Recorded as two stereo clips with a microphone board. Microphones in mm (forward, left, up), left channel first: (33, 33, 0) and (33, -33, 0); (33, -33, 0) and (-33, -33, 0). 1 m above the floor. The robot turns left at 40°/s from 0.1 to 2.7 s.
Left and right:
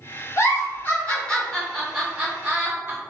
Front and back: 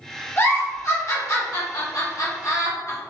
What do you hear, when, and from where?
0.4 s a giggle: 55° left, 1.1 m; by 3.0 s 40° right, 1.1 m